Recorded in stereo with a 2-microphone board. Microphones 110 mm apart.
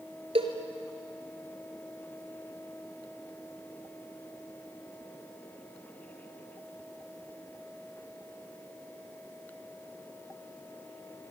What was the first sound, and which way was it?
A cowbell, 60° right (ahead or behind).